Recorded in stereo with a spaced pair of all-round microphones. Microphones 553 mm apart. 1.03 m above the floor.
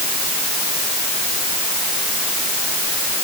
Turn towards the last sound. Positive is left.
No sound to turn to.